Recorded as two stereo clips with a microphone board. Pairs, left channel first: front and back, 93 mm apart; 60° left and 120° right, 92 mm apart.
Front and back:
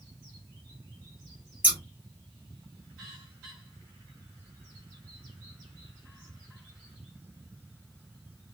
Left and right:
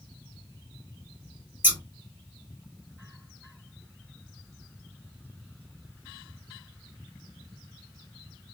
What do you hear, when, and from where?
1.6 s scissors: 140° right, 1.5 m